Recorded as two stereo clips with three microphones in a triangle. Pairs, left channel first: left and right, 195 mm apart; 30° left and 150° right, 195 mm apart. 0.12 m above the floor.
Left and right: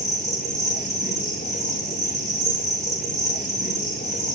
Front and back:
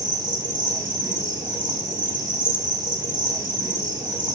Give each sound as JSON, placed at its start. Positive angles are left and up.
{"t": 0.0, "sound": "an insect", "azimuth_deg": 135, "distance_m": 2.0}